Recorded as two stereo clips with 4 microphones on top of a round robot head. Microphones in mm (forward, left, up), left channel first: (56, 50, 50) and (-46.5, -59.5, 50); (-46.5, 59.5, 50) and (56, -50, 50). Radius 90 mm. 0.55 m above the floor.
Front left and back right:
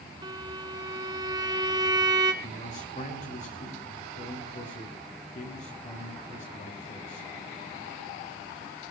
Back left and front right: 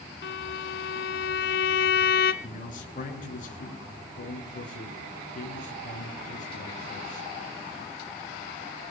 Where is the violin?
160° left, 1.0 m.